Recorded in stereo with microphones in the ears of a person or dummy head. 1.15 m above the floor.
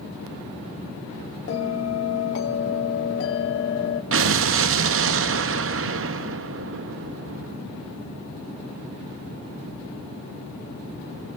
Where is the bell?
75° left (ahead or behind), 2 m.